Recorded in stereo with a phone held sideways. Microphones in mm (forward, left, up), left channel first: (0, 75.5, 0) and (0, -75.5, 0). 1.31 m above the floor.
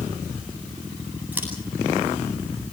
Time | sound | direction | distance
1.3 | scissors | 10° right (ahead or behind) | 9.5 m